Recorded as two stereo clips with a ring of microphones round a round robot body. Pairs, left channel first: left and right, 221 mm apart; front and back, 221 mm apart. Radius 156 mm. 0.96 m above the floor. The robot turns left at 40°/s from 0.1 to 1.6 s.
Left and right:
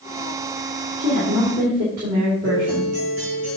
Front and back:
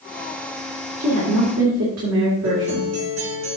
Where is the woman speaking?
130° right, 2 m; by 2.9 s 155° right, 2 m.